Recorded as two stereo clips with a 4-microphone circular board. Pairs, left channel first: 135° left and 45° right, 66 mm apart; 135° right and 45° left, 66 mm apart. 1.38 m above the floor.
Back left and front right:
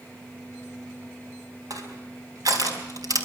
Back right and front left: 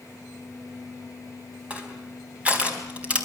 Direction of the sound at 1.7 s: 25° right.